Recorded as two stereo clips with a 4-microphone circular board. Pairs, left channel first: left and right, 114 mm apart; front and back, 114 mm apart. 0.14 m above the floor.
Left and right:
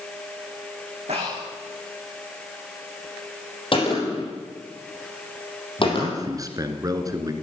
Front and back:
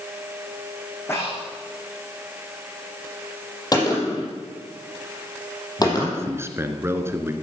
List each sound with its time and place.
1.1 s breathing: 70° right, 7.5 m
3.7 s a gunshot: 55° left, 5.5 m
5.8 s a man speaking: 125° right, 1.7 m